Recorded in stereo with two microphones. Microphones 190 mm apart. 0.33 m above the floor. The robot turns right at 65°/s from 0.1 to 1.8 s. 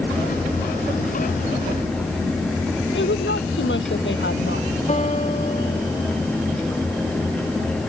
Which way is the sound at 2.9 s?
80° left.